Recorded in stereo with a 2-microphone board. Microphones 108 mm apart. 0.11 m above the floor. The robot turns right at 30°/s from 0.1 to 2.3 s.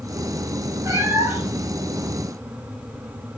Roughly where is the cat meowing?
Right.